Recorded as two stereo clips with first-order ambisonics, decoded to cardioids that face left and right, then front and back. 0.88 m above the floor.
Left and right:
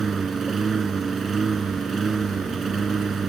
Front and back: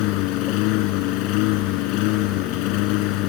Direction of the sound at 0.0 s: 20° right.